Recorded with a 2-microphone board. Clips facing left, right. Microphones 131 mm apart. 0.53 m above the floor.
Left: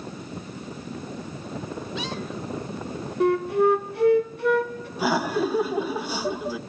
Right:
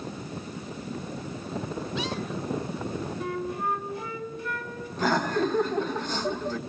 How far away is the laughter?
About 1.0 m.